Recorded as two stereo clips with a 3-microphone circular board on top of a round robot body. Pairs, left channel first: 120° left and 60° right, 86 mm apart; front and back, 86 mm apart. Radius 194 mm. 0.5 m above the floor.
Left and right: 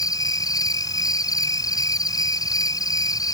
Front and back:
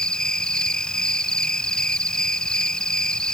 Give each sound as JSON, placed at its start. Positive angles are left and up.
{"t": 0.0, "sound": "an insect", "azimuth_deg": 80}